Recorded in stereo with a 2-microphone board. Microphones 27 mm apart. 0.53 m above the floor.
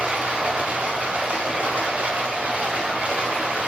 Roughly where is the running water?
Right.